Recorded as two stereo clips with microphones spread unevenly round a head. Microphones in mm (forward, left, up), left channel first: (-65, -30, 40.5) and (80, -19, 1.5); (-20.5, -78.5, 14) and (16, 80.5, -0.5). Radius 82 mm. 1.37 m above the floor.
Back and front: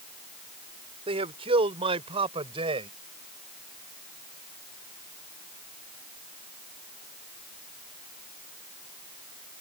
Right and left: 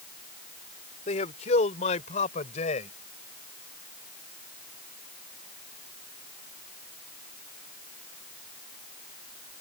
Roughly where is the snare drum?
I don't hear a snare drum.